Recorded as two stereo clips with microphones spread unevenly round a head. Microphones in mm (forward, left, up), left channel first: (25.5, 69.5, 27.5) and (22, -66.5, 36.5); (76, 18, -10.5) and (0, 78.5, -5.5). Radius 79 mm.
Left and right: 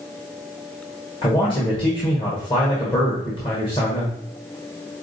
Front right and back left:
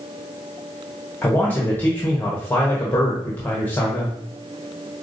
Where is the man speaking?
35° left, 1.3 m.